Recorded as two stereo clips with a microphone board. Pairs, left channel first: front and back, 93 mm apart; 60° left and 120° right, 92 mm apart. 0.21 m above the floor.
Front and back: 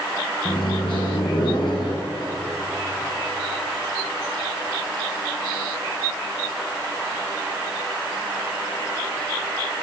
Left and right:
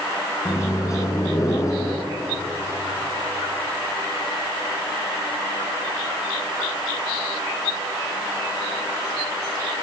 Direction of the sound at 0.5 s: 10° left.